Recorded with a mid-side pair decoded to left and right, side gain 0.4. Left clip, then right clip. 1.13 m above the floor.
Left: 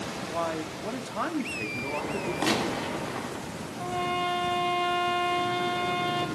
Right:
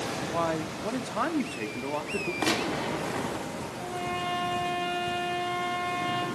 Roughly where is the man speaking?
Ahead right.